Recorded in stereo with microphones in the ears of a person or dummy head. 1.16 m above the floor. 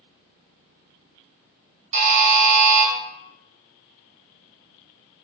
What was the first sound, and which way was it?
A buzzer, 25° right (ahead or behind).